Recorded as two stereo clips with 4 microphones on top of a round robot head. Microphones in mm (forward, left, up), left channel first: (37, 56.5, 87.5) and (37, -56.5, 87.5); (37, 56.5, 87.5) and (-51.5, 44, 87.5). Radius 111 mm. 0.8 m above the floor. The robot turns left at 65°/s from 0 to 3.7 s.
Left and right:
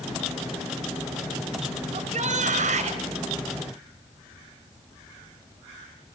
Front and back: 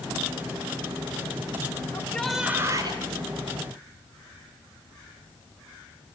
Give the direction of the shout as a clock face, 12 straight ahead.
2 o'clock.